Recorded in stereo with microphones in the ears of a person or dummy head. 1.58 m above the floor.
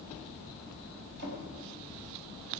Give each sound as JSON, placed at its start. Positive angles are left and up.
{"t": 1.2, "sound": "a drawer", "side_deg": -55, "distance_m": 5.0}